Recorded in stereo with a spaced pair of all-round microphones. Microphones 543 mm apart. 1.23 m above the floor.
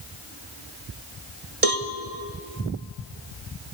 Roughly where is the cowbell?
Right.